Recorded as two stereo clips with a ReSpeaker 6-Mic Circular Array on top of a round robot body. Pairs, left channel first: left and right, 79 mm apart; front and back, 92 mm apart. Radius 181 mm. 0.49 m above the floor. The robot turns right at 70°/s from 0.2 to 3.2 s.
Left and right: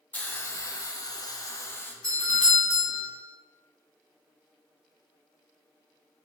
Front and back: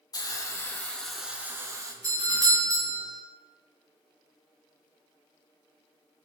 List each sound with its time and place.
0.1 s a hiss: 25° left, 0.5 m; by 1.9 s 145° left, 0.5 m
2.0 s a doorbell: 160° left, 2.0 m; by 3.1 s 130° right, 2.0 m